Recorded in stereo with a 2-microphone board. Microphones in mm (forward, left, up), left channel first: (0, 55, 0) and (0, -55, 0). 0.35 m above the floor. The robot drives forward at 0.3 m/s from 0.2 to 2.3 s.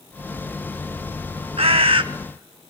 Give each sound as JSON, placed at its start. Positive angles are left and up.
{"t": 1.6, "sound": "a bird", "side_deg": -65, "distance_m": 0.5}